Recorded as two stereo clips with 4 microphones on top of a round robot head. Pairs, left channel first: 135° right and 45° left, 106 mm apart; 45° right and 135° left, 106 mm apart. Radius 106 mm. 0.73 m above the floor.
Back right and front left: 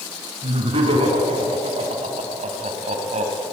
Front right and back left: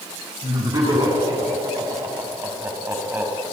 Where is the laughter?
85° left, 7 m; by 3.4 s 65° left, 4.5 m.